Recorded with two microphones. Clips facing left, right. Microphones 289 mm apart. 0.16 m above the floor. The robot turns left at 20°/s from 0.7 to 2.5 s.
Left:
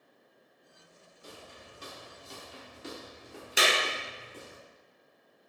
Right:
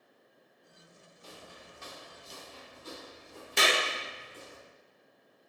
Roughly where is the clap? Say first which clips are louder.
Even; centre.